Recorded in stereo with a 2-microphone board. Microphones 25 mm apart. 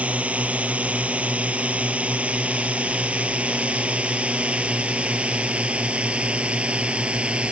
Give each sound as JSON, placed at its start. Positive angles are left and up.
{"t": 0.0, "sound": "a drone", "side_deg": -70}